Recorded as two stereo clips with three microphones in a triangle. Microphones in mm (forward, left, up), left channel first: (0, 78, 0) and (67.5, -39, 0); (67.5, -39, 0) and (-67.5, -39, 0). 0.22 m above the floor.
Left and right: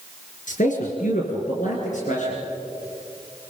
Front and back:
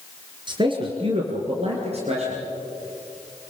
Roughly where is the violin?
I don't hear a violin.